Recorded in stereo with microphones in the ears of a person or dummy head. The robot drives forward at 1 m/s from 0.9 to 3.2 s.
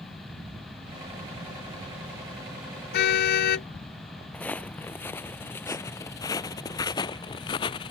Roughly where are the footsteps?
Centre.